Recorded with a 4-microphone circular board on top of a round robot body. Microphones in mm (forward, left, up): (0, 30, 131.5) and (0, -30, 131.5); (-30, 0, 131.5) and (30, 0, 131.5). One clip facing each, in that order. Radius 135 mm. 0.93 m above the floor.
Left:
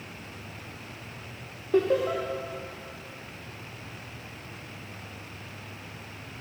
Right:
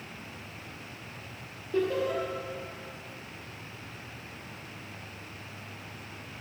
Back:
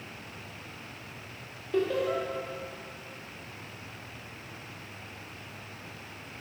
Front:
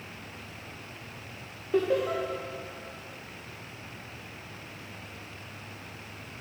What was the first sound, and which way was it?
Laughter, 75° left.